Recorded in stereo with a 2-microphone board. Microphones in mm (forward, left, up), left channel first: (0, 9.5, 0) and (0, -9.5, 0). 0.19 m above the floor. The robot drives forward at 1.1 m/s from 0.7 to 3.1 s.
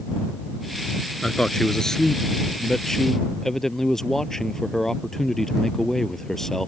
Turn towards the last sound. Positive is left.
turn(degrees=25)  # may be behind; listen again after turning